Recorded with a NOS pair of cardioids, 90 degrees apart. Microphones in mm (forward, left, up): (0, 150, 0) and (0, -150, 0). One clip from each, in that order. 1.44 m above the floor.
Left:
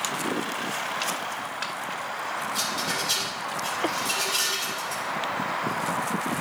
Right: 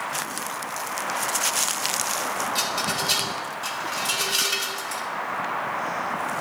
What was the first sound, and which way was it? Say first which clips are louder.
A rattle: right 1 dB; 35° right.